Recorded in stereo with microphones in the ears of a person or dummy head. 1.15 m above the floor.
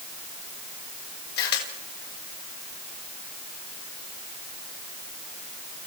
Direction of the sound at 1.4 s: 55° left (ahead or behind).